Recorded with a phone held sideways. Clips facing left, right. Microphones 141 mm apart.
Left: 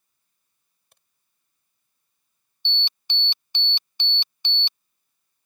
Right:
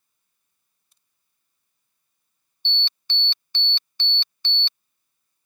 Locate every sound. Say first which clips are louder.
0.9 s a crack: left 15 dB; 75° left (ahead or behind)
2.6 s an alarm: even; 15° left (ahead or behind)